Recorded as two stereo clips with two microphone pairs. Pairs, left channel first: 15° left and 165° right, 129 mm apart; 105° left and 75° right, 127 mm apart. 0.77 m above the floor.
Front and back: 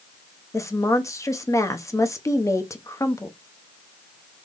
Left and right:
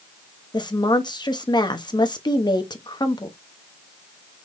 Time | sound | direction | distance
0.5 | a woman speaking | 70° left | 0.9 m